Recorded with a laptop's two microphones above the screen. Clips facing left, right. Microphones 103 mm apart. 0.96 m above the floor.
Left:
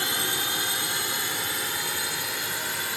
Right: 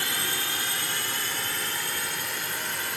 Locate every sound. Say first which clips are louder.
0.0 s a drone: left 2 dB; 20° left (ahead or behind); by 3.0 s 5° left (ahead or behind)